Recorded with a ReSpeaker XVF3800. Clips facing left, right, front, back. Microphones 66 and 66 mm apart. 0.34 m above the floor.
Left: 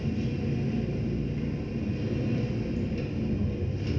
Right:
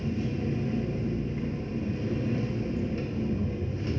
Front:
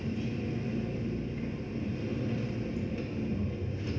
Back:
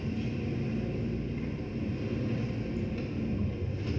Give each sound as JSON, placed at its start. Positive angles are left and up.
{"t": 0.0, "sound": "an engine running", "azimuth_deg": -85, "distance_m": 0.7}